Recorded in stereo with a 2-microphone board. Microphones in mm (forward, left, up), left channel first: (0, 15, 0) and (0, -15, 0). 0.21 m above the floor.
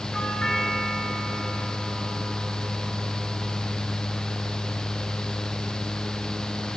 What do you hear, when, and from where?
0.1 s a doorbell: 15° left (ahead or behind), 4 m